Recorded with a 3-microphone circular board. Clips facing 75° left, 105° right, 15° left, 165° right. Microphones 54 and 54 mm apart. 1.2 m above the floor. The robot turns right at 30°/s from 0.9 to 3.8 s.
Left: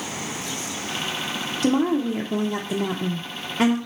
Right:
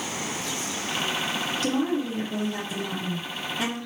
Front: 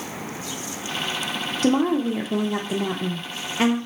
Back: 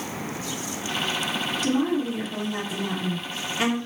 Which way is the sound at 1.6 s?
15° left.